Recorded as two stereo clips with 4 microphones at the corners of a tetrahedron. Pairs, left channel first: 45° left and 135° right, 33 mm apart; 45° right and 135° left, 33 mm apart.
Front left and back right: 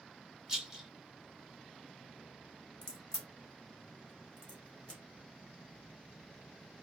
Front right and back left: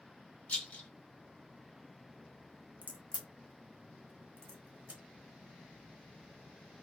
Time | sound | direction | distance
0.5 | a rattle | 65° right | 0.8 m
2.8 | a crack | 105° left | 0.8 m